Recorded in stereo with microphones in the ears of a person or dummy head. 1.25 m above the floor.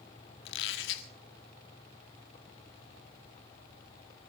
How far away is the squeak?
About 1.7 m.